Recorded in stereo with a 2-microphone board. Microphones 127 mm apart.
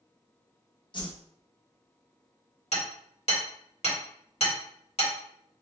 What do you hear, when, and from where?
0.9 s a whoosh: 40° left (ahead or behind), 1.0 m
2.7 s hammering: 60° left (ahead or behind), 2.5 m